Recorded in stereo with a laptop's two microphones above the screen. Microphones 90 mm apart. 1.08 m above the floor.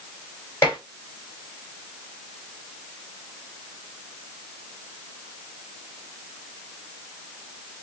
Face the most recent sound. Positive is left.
turn(degrees=30)  # may be behind; listen again after turning